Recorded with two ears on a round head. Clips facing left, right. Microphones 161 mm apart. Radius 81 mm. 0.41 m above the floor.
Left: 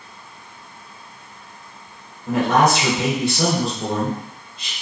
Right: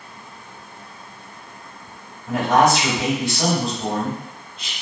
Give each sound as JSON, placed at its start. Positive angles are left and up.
{"t": 2.3, "sound": "a man speaking", "side_deg": 35, "distance_m": 1.6}